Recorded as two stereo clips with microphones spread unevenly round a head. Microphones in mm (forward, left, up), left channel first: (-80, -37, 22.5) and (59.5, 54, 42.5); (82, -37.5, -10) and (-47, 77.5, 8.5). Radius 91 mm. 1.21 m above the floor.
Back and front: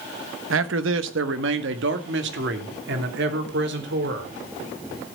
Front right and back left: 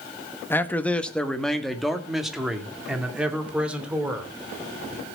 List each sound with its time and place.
0.5 s a man speaking: 35° left, 1.2 m; by 4.3 s 55° left, 3.5 m